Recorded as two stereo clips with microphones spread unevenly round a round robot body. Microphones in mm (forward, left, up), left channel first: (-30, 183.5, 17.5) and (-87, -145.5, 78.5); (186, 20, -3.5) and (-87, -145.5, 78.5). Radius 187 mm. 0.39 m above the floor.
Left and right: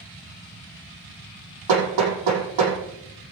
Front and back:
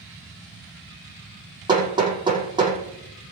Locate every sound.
1.7 s hammering: 75° right, 6 m